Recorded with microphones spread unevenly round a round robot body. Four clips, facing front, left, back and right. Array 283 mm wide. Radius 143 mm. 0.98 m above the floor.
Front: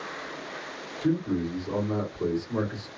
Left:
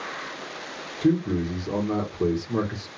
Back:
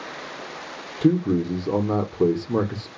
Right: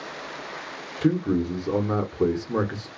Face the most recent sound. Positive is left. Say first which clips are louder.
# even, back 6 dB
turn(degrees=-160)